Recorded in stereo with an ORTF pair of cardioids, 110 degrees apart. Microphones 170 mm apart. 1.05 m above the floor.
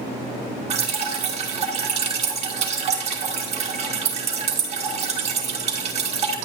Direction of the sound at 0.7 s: 40° right.